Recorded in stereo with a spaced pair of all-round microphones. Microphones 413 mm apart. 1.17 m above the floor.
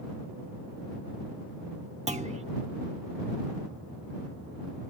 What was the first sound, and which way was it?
A clunk, 15° right (ahead or behind).